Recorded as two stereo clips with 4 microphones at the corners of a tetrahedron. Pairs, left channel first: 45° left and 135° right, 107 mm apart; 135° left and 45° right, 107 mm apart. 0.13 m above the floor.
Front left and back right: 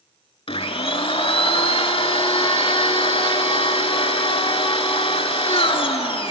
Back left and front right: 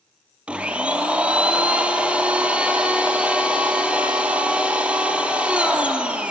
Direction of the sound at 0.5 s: 30° left.